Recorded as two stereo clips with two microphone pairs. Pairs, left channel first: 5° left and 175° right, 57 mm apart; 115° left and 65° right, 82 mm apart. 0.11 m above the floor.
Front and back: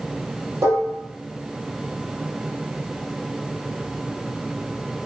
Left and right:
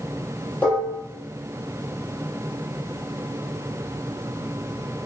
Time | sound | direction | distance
0.6 | dishes clattering | straight behind | 2 m